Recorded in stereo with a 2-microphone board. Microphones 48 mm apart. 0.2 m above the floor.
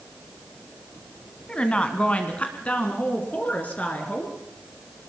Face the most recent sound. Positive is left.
turn(degrees=35)  # may be behind; listen again after turning